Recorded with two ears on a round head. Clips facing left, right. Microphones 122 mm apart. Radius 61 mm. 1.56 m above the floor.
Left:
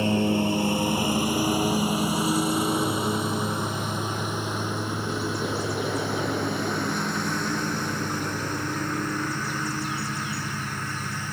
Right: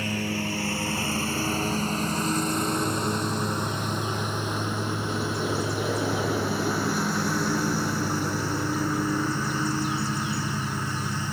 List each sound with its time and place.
0.0 s a lawn mower: 20° left (ahead or behind); by 11.3 s 10° right (ahead or behind)